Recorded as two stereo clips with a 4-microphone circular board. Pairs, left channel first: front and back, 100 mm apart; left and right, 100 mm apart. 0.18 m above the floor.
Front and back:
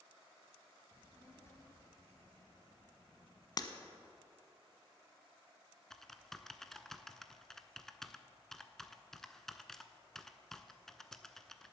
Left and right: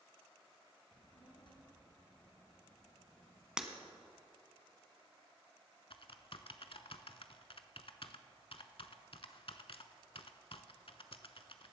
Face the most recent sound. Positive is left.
turn(degrees=85)